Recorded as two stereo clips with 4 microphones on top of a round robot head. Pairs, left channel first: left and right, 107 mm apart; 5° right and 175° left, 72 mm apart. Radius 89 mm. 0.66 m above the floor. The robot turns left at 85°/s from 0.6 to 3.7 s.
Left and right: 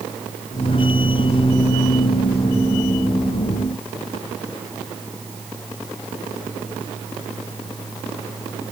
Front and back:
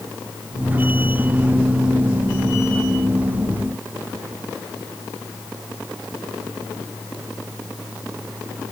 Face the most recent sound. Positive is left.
No sound to turn to.